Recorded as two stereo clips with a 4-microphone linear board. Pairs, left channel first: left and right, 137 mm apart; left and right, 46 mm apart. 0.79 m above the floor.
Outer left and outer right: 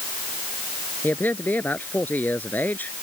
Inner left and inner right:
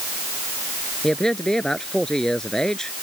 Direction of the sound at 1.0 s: 15° left (ahead or behind).